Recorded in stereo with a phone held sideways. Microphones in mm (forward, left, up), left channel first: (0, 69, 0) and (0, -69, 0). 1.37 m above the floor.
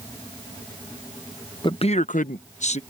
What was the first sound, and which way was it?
A man speaking, 35° left (ahead or behind).